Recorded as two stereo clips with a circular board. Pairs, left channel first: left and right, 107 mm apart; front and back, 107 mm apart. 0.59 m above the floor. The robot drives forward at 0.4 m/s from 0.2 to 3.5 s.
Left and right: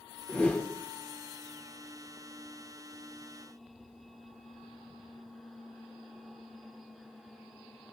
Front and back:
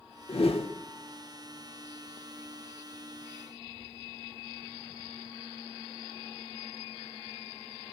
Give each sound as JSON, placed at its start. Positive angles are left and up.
{"t": 0.3, "sound": "a whoosh", "azimuth_deg": 10, "distance_m": 1.2}